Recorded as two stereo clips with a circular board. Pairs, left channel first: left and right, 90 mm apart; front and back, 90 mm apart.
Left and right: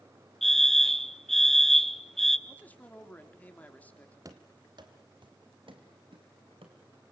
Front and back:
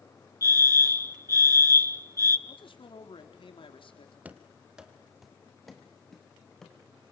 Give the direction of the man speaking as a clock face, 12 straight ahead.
11 o'clock.